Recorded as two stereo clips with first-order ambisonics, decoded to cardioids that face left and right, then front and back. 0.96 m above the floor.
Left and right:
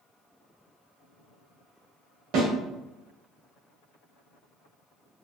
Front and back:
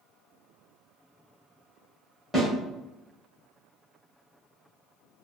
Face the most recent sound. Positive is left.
turn(degrees=-90)